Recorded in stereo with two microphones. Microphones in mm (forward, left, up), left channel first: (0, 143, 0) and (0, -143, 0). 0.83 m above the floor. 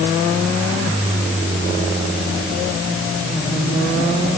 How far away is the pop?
I don't hear a pop.